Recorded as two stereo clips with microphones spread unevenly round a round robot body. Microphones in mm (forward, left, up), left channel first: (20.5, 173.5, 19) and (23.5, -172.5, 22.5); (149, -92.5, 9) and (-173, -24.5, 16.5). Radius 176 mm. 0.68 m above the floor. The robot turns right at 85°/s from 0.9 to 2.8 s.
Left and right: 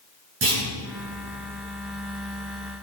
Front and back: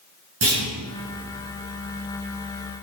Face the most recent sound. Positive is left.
turn(degrees=15)